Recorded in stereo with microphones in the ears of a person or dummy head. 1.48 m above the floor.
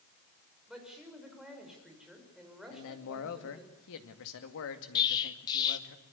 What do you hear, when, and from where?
0.7 s a woman speaking: 5° right (ahead or behind), 6 m
2.7 s a man speaking: 65° left (ahead or behind), 2 m
5.0 s an explosion: 25° left (ahead or behind), 1.5 m